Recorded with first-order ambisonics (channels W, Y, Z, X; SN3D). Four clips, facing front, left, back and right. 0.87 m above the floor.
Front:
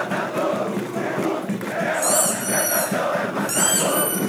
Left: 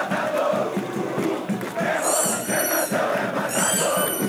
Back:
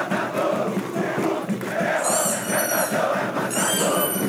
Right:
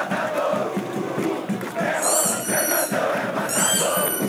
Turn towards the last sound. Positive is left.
turn(degrees=-20)